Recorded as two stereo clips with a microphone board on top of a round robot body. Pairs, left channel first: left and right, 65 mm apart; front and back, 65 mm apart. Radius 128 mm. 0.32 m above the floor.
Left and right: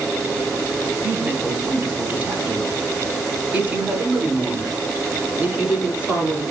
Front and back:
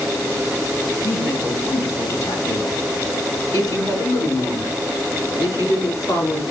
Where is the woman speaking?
35° right, 2.5 m; by 6.4 s 15° right, 5 m.